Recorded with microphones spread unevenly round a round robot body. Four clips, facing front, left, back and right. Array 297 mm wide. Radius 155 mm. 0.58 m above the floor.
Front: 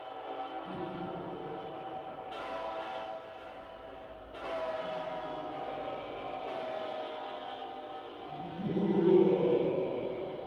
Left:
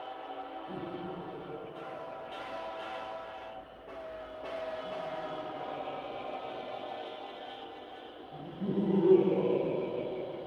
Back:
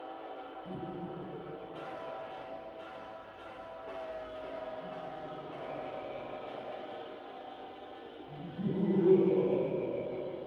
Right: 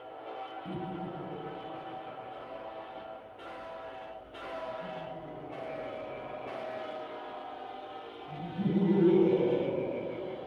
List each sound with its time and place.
0.7 s laughter: 95° right, 7.5 m